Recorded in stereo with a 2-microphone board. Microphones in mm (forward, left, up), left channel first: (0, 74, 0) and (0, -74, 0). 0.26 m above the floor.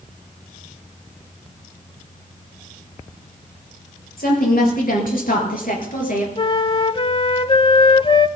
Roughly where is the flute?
Left.